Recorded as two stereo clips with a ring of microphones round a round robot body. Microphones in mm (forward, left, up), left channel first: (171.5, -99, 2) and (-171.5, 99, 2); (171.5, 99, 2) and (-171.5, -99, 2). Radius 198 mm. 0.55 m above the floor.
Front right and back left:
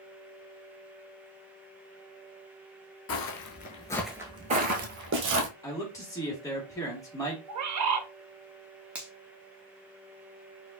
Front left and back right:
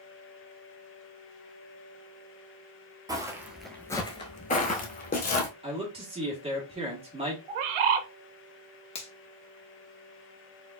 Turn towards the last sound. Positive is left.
turn(degrees=70)